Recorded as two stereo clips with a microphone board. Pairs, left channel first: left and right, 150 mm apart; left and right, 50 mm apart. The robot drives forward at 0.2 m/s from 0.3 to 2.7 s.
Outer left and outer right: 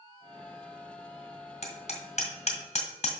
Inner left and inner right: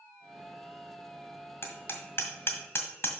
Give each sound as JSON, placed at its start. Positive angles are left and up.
{"t": 1.6, "sound": "hammering", "side_deg": 50, "distance_m": 1.8}